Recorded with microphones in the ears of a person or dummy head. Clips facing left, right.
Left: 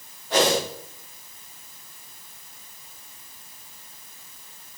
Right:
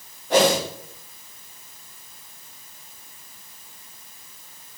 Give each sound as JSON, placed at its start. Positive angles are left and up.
{"t": 0.3, "sound": "a whoosh", "side_deg": -50, "distance_m": 4.5}